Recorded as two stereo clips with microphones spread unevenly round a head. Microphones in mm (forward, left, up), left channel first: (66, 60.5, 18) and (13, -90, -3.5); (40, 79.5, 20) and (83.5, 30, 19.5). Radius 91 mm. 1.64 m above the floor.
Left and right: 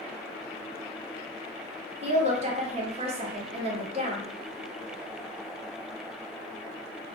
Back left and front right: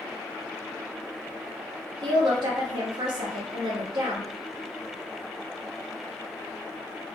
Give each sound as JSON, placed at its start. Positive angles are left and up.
{"t": 2.0, "sound": "a woman speaking", "azimuth_deg": -60, "distance_m": 1.0}